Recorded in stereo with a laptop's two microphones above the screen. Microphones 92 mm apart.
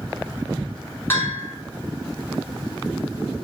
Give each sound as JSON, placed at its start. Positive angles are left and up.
{"t": 1.1, "sound": "a bell", "side_deg": 25, "distance_m": 4.0}